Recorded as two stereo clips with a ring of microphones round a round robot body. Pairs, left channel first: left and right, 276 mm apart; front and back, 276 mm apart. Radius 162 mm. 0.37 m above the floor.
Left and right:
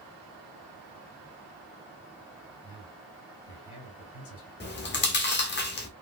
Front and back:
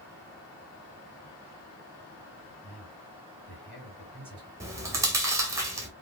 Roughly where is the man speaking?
Left.